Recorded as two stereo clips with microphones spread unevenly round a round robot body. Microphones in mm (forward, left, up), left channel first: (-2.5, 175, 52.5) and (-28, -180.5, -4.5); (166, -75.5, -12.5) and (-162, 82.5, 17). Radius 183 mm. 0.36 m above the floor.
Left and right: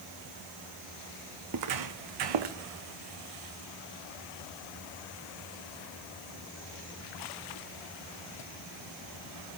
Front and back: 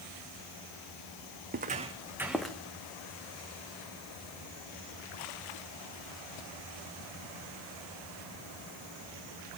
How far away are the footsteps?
About 1.5 m.